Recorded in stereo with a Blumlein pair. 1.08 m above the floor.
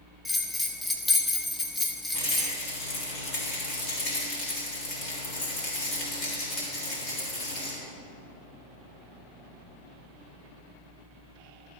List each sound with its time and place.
0.2 s a bell: 10° left, 1.0 m
2.1 s a rattle: 40° left, 3.5 m